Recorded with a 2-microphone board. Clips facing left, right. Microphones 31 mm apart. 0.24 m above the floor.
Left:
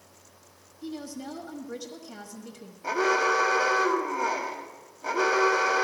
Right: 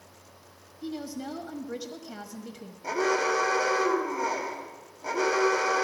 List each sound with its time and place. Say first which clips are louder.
0.8 s a woman speaking: right 2 dB; 15° right (ahead or behind), 1.1 m
2.8 s an alarm: left 2 dB; 20° left (ahead or behind), 1.3 m